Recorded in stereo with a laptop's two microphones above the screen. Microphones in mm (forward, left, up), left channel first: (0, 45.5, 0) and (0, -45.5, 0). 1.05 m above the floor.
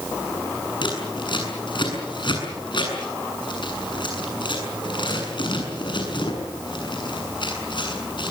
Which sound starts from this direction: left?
Scissors, at 0.8 s.